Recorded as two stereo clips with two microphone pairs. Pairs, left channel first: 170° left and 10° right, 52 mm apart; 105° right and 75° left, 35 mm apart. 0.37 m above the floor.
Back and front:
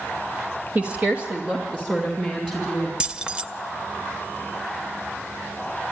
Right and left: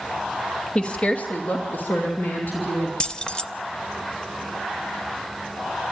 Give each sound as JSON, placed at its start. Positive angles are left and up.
{"t": 0.8, "sound": "a woman speaking", "azimuth_deg": -55, "distance_m": 1.3}
{"t": 3.0, "sound": "keys jangling", "azimuth_deg": -65, "distance_m": 0.7}